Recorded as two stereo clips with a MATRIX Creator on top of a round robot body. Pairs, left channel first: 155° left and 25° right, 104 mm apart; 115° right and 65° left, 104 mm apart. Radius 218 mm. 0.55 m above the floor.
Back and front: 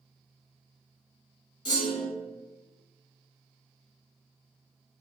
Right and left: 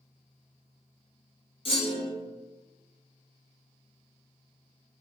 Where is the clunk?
150° right, 0.9 m.